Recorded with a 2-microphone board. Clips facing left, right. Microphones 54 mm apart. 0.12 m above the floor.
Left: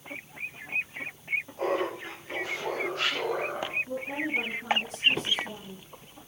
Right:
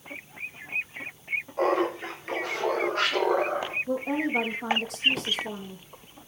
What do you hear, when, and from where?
1.6 s laughter: 55° right (ahead or behind), 8.5 m
3.9 s a woman speaking: 70° right (ahead or behind), 5 m